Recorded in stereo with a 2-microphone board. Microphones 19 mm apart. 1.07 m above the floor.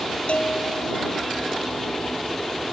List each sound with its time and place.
0.3 s a bell: 80° left